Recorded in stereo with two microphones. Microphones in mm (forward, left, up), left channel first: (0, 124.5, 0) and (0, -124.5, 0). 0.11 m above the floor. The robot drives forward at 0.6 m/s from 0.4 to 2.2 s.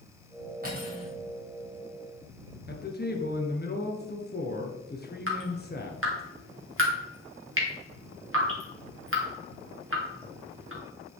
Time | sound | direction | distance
0.6 | cutlery clinking | 35° right (ahead or behind) | 2.5 m
2.7 | a man speaking | 40° left (ahead or behind) | 1.6 m
5.3 | dripping | 55° right (ahead or behind) | 2 m